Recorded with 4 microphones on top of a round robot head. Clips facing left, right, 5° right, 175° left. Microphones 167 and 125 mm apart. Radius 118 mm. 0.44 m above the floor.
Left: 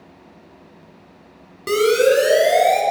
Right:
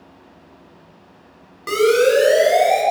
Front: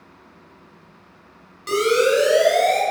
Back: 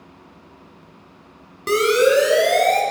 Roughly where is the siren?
Behind left.